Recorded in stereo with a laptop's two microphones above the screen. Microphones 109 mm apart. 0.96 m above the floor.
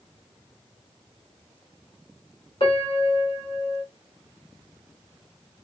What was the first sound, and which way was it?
A piano, 50° left (ahead or behind).